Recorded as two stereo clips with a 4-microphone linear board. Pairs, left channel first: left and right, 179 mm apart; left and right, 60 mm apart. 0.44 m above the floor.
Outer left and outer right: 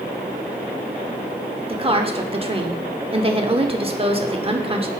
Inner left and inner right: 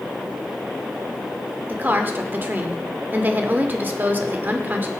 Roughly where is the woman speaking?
Right.